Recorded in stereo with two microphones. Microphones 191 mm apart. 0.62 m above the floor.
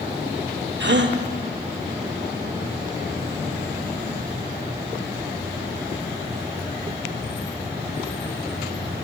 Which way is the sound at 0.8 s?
75° right (ahead or behind).